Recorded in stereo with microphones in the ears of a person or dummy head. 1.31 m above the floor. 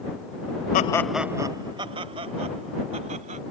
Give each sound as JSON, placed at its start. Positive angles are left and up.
{"t": 0.7, "sound": "laughter", "side_deg": 50}